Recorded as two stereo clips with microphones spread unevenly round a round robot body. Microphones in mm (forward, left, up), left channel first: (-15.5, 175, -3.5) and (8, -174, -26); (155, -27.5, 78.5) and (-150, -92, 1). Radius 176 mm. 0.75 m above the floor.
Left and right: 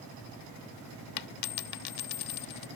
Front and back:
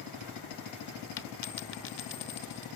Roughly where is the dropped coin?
Ahead left.